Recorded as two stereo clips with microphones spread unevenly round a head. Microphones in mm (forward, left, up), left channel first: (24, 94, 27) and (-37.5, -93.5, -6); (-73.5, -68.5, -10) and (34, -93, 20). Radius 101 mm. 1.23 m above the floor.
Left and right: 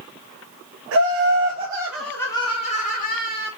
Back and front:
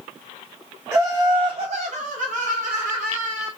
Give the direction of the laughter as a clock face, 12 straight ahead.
3 o'clock.